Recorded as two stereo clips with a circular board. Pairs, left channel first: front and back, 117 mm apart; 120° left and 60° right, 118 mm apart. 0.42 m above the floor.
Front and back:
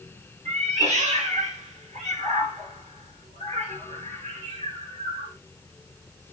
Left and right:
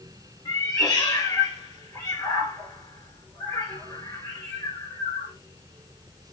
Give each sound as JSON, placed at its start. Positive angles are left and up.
{"t": 0.5, "sound": "a cat meowing", "azimuth_deg": 175, "distance_m": 1.5}